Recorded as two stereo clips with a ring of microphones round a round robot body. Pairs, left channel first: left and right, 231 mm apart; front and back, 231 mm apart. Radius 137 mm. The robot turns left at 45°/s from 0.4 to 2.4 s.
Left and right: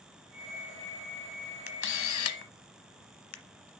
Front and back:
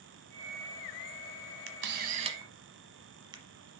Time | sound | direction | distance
1.7 | a camera shutter | 140° left | 0.9 m